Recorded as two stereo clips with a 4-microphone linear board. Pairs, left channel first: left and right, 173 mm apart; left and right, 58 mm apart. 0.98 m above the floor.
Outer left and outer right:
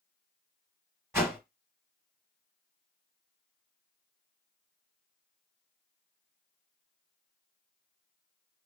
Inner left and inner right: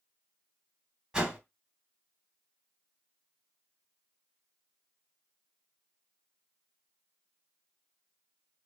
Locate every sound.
1.1 s a whoosh: 15° right (ahead or behind), 1.1 m